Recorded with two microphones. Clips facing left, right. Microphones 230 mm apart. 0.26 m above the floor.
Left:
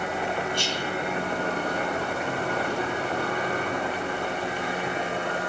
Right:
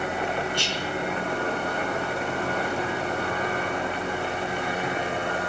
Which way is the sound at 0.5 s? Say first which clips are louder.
Even; 45° left (ahead or behind).